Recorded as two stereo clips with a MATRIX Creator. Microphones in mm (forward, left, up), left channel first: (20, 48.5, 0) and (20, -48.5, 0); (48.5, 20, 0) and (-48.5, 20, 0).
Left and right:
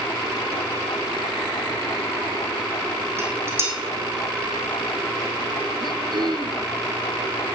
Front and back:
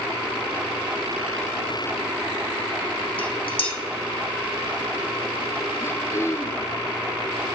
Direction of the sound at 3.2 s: 25° right.